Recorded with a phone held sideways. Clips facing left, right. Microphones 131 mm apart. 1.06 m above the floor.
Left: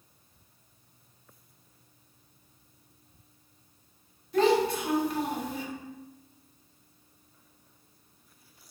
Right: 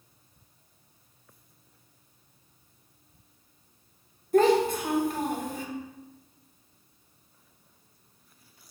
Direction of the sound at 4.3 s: 45° right (ahead or behind).